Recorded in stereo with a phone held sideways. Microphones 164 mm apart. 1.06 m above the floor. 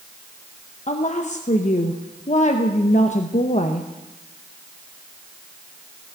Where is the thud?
No thud in this recording.